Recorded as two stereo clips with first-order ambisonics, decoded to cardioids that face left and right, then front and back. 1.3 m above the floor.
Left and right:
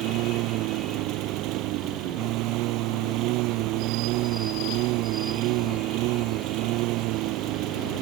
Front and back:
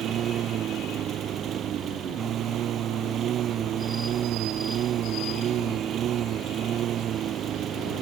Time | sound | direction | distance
0.0 | a lawn mower | 125° right | ?